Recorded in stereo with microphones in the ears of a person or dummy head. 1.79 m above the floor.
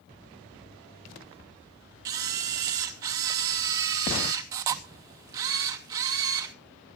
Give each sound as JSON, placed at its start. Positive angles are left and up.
{"t": 2.0, "sound": "a camera shutter", "side_deg": -25, "distance_m": 0.7}